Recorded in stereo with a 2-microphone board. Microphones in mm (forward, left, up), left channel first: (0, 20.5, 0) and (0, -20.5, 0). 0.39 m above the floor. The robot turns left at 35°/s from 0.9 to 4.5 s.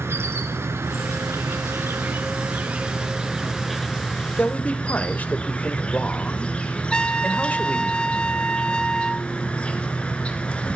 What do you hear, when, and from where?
0.0 s an insect: 80° right, 1.5 m; by 10.8 s 155° left, 1.5 m
4.4 s a man speaking: 40° left (ahead or behind), 1.2 m; by 7.9 s 35° left (ahead or behind), 1.2 m
6.9 s a trumpet: 20° left (ahead or behind), 0.6 m